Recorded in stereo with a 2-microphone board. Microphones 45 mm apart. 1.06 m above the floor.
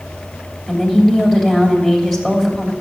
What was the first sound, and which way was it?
A woman speaking, 5° right (ahead or behind).